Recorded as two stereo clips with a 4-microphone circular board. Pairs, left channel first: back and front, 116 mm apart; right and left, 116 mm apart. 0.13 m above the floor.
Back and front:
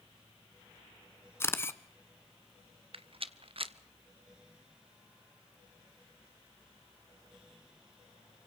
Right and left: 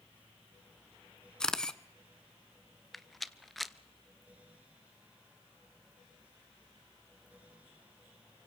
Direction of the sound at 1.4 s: 165° right.